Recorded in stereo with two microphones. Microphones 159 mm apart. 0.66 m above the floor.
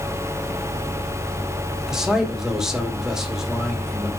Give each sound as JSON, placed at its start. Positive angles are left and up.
{"t": 1.9, "sound": "a man speaking", "side_deg": -5, "distance_m": 1.8}